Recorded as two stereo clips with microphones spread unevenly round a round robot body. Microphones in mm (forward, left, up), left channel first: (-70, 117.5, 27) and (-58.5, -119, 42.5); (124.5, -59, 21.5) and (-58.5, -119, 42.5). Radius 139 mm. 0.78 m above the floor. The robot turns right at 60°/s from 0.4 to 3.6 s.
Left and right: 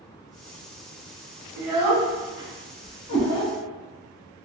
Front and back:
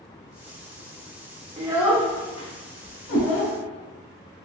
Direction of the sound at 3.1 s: 50° left.